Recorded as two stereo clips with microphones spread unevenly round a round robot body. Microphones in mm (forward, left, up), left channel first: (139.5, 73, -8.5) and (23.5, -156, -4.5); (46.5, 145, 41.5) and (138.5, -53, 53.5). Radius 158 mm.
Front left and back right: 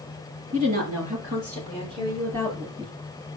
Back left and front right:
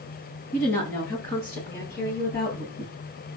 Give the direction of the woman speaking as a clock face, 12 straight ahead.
6 o'clock.